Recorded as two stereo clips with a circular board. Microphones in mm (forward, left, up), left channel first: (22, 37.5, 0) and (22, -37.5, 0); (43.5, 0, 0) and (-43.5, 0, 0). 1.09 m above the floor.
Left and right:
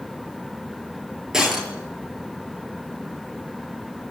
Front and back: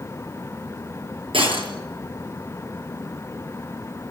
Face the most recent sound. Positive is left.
turn(degrees=-175)